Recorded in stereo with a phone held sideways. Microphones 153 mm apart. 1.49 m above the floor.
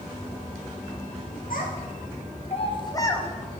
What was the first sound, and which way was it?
A child speaking, 75° left (ahead or behind).